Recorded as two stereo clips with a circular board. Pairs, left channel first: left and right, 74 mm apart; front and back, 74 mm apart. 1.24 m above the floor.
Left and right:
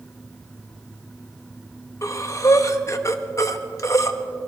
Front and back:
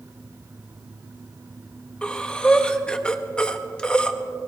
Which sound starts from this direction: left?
Breathing, at 2.0 s.